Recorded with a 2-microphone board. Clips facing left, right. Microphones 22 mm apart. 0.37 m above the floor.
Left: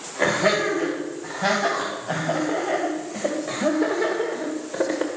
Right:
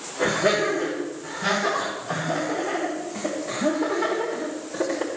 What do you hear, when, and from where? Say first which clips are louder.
0.2 s laughter: left 1 dB; 35° left (ahead or behind), 3 m; by 5.1 s 15° left (ahead or behind), 1.2 m